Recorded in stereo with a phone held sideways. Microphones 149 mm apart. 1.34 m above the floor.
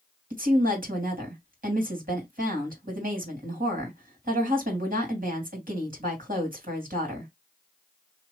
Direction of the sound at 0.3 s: 70° right (ahead or behind).